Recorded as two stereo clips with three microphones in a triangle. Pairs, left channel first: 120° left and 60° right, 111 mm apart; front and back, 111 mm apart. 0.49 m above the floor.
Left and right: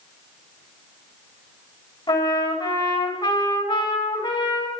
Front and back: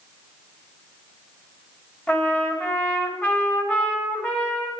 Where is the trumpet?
75° left, 3 m.